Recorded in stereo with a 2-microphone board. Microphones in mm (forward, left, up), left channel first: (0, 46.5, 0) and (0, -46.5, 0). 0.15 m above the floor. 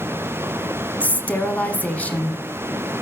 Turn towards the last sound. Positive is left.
turn(degrees=15)  # may be behind; listen again after turning